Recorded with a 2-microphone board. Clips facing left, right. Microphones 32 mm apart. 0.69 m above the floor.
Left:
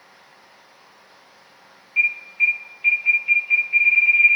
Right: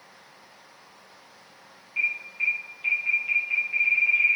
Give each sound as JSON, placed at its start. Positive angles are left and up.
{"t": 2.0, "sound": "an alarm", "side_deg": 20, "distance_m": 1.6}